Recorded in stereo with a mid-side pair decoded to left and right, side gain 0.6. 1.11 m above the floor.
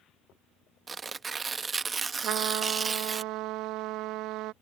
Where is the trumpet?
65° right.